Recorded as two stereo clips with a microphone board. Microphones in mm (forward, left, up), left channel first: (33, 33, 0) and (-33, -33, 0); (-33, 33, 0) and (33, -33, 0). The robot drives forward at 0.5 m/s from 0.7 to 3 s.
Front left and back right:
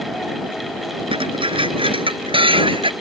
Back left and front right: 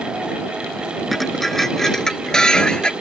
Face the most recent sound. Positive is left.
turn(degrees=-145)